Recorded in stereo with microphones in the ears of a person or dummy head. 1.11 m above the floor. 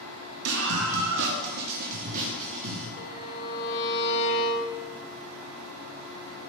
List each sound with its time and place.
0.5 s a scream: 75° right (ahead or behind), 1.4 m; by 2.9 s 30° right (ahead or behind), 2.5 m
3.0 s a violin: 65° left (ahead or behind), 1.2 m